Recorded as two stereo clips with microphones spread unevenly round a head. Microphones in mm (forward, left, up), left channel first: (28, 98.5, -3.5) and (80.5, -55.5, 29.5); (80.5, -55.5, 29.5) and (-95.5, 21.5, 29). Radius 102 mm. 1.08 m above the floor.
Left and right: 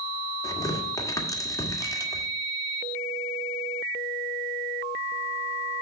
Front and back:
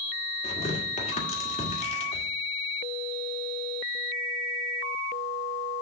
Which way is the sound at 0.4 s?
35° left.